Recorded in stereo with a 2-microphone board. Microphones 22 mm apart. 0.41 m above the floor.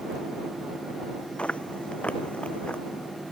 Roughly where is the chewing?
Left.